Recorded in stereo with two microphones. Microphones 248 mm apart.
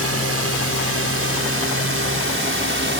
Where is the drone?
65° right (ahead or behind); by 3.0 s 50° right (ahead or behind).